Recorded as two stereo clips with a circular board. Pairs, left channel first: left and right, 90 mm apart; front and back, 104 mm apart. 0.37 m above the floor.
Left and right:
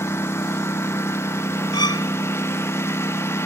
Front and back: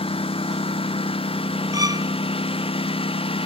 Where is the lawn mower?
30° left.